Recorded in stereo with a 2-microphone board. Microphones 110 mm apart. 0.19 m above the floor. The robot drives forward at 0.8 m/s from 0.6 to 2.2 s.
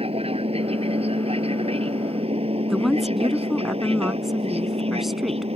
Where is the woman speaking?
5° right (ahead or behind).